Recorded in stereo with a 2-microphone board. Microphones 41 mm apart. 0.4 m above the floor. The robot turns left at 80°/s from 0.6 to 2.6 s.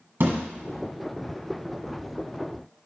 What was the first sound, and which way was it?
A thud, 60° right (ahead or behind).